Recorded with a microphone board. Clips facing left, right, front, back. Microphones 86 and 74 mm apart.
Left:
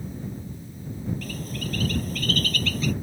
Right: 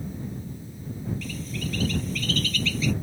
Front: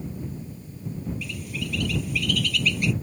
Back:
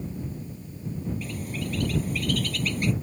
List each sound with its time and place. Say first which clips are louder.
1.2 s a bird: even, back 1 dB; 130° left